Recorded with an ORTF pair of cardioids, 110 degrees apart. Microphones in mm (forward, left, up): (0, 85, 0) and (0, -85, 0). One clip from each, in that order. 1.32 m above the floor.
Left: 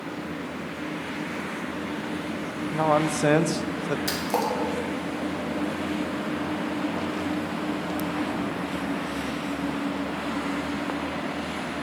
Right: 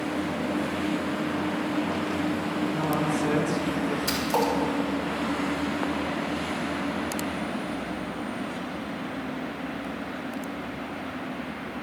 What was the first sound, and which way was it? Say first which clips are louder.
A man speaking: left 8 dB; 55° left.